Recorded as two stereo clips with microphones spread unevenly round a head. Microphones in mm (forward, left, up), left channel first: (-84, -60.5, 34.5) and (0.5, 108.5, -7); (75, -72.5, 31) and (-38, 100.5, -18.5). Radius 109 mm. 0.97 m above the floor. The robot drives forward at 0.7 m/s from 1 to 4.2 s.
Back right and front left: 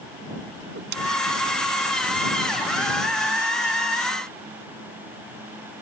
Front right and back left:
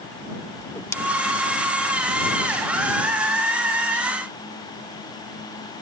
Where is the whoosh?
15° left.